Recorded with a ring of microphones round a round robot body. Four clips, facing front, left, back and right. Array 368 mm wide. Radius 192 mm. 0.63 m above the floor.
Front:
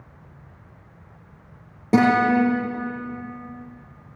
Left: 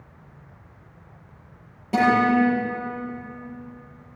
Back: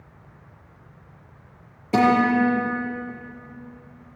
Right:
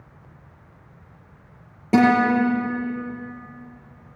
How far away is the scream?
No scream in this recording.